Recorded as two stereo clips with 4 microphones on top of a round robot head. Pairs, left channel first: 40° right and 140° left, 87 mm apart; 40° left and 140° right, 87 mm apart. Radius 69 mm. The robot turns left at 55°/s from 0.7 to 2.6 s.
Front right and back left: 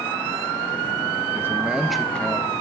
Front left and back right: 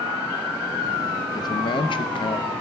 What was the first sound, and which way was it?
A man speaking, 80° left.